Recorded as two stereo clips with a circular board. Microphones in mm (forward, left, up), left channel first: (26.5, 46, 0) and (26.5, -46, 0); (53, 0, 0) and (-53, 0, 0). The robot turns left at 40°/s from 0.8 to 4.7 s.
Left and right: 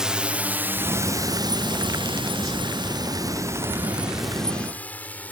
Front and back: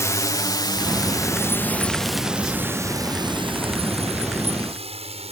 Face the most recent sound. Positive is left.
turn(degrees=165)